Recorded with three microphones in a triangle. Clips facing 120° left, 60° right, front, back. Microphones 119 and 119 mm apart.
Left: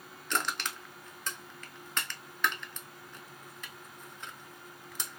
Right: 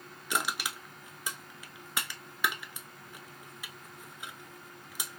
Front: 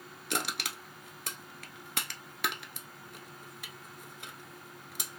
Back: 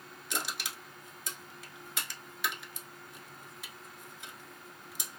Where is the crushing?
20° left, 0.7 m.